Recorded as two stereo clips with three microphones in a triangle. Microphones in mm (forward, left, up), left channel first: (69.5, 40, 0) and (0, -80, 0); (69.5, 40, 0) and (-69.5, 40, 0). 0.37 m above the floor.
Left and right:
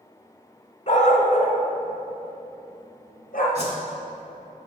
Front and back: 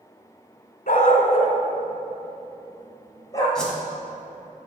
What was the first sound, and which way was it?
A dog barking, 20° left.